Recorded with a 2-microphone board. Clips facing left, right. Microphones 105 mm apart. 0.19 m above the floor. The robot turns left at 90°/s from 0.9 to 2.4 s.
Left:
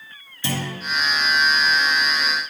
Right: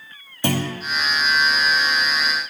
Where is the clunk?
55° right (ahead or behind), 2.5 m.